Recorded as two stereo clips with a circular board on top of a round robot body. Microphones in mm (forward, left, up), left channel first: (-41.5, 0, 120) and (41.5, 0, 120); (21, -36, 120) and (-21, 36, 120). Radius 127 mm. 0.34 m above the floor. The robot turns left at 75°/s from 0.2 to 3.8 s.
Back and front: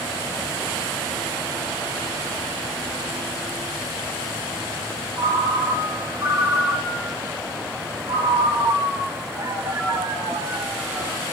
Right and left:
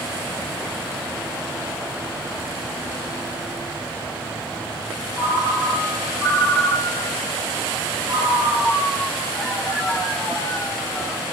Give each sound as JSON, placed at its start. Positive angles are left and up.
{"t": 5.2, "sound": "a ringtone", "azimuth_deg": 45, "distance_m": 1.5}